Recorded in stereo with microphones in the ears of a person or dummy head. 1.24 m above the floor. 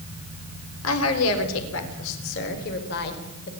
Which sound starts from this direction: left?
A woman speaking, at 0.8 s.